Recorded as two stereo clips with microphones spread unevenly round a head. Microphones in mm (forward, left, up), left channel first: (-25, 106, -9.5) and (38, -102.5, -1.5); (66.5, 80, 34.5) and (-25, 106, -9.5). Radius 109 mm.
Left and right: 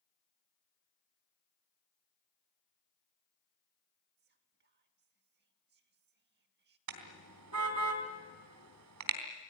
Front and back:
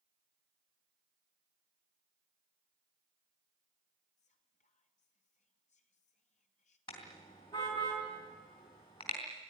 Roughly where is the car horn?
Right.